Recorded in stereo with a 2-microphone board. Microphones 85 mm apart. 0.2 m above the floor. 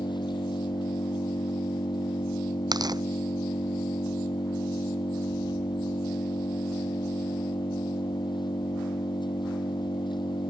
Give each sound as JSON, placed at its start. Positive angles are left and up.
{"t": 0.0, "sound": "an engine running", "side_deg": 65}
{"t": 2.7, "sound": "tearing paper", "side_deg": -55}